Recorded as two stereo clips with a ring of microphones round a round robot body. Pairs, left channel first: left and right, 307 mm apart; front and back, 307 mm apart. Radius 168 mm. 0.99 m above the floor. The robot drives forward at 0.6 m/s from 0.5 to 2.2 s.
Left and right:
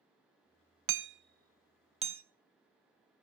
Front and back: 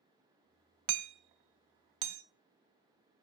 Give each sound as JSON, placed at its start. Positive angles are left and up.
{"t": 0.9, "sound": "hammering", "azimuth_deg": -135, "distance_m": 0.6}